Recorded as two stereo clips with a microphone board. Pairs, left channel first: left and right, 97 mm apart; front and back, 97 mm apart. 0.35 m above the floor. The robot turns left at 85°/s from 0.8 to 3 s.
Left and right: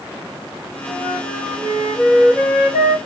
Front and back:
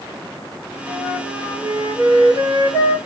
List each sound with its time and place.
0.9 s a flute: 70° right, 4 m; by 3.0 s 115° left, 4 m